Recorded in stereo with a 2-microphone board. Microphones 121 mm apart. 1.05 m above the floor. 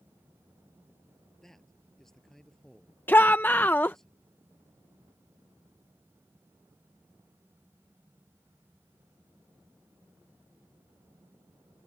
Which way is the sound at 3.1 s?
15° left (ahead or behind).